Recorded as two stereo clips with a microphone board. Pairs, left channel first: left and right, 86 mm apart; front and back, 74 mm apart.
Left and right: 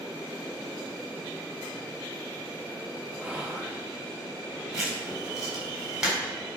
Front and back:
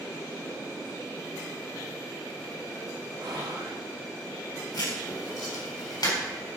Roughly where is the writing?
Ahead.